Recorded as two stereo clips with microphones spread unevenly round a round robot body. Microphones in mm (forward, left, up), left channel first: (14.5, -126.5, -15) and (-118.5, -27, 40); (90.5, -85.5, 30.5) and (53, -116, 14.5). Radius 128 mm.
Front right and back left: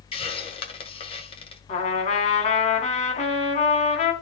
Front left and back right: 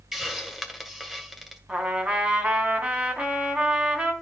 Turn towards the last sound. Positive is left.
turn(degrees=-80)